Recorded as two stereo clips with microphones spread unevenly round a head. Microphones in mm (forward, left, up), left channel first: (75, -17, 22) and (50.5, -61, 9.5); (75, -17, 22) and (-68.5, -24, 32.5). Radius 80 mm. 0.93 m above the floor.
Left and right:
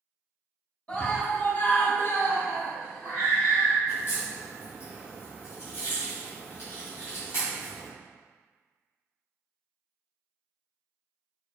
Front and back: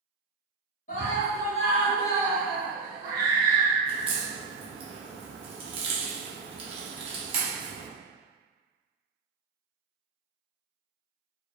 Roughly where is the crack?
Behind left.